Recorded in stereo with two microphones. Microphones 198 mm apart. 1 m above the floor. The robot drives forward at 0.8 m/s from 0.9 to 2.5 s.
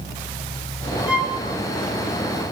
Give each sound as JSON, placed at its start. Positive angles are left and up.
{"t": 1.1, "sound": "a violin", "side_deg": -5, "distance_m": 1.6}